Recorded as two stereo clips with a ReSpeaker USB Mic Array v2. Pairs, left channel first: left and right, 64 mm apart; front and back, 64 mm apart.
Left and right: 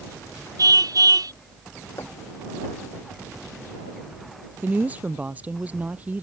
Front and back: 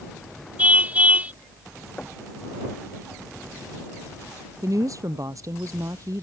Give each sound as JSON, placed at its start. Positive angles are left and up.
{"t": 0.6, "sound": "a car horn", "azimuth_deg": -110}
{"t": 2.0, "sound": "knocking", "azimuth_deg": 70}
{"t": 4.6, "sound": "a woman speaking", "azimuth_deg": -155}